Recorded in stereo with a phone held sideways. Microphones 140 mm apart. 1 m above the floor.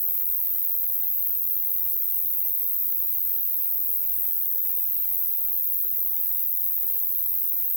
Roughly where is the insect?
Left.